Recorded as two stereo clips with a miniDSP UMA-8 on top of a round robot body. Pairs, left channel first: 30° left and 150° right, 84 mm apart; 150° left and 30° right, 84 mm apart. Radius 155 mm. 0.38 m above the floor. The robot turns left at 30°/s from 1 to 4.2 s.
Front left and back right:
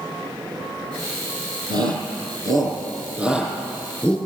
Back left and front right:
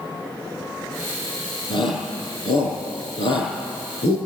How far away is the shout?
About 7 m.